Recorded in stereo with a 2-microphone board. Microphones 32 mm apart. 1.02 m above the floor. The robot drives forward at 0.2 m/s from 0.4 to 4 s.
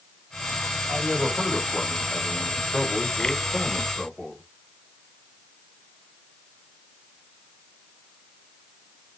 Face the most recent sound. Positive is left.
turn(degrees=20)  # may be behind; listen again after turning